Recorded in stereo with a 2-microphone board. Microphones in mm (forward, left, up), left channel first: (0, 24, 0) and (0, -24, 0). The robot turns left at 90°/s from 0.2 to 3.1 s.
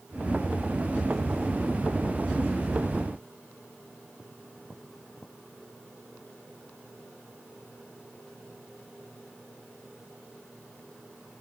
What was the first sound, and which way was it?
Only background noise.